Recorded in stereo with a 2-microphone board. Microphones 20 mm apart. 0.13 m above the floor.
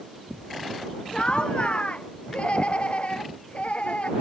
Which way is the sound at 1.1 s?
50° left (ahead or behind).